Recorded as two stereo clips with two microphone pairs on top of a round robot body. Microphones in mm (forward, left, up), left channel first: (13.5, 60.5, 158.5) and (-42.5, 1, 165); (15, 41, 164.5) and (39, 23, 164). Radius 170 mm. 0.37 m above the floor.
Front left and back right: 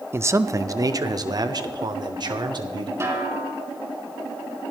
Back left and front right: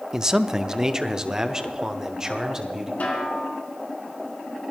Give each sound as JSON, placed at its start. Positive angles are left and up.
{"t": 0.1, "sound": "a man speaking", "azimuth_deg": -90, "distance_m": 0.8}
{"t": 3.0, "sound": "a snare drum", "azimuth_deg": 175, "distance_m": 3.5}